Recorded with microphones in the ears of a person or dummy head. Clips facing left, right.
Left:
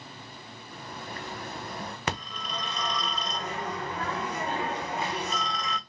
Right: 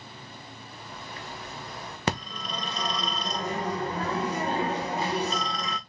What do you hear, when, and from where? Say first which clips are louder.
0.7 s a bird: left 4 dB; 40° left (ahead or behind), 0.6 m
2.1 s a phone ringing: right 6 dB; 30° right (ahead or behind), 0.6 m